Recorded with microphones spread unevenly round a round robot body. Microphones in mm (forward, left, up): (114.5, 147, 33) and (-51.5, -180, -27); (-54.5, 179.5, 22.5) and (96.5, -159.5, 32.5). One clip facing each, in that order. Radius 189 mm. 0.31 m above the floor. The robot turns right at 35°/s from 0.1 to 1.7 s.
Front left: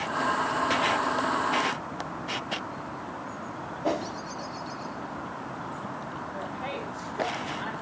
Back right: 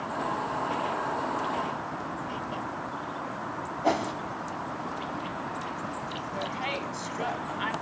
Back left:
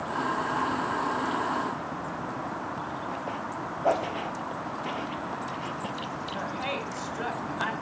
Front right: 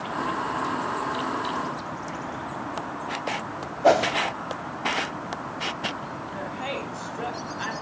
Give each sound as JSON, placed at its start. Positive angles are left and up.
{"t": 3.8, "sound": "a whoosh", "azimuth_deg": -40, "distance_m": 0.6}
{"t": 6.3, "sound": "a woman speaking", "azimuth_deg": -165, "distance_m": 1.9}